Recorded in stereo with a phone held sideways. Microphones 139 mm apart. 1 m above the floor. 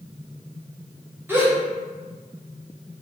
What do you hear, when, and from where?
1.3 s a gasp: 15° right (ahead or behind), 0.8 m